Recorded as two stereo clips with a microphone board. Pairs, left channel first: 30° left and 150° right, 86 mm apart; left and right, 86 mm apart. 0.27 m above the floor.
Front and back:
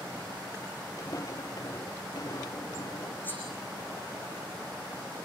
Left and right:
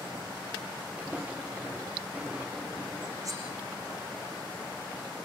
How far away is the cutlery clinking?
About 8 m.